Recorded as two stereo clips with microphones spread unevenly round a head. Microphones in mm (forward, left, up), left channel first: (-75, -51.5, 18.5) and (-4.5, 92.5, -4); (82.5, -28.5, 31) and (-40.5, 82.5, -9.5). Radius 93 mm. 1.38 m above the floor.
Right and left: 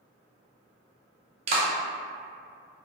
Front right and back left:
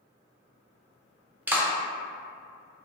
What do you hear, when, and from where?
1.5 s a clap: 40° left, 0.5 m